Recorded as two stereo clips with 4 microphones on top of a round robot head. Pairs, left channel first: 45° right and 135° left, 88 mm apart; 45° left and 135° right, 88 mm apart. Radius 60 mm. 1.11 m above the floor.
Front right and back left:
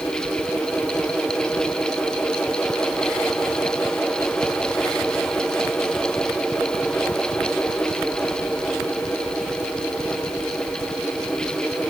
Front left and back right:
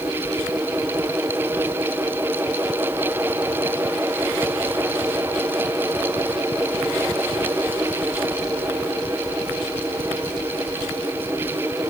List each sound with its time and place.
Only background noise.